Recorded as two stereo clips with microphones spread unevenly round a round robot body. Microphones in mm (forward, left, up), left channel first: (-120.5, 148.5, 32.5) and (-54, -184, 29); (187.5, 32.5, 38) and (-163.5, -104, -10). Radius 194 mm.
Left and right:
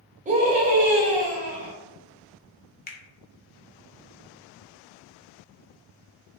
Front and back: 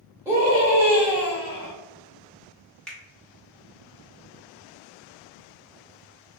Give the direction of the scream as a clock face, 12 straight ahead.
3 o'clock.